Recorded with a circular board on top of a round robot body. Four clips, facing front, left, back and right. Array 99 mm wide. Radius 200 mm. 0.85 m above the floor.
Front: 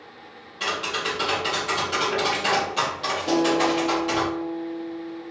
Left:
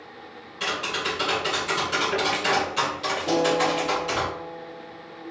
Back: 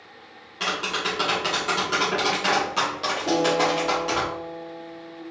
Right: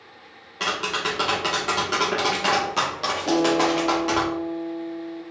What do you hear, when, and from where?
0.6 s tapping: 110° right, 0.8 m
3.3 s a guitar: 125° right, 1.7 m